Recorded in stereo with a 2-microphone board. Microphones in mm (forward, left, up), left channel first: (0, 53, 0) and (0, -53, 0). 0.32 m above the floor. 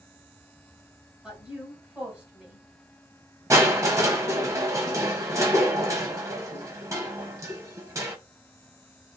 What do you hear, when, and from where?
1.2 s a woman speaking: 10° right (ahead or behind), 1.5 m
3.5 s crushing: 30° right (ahead or behind), 0.6 m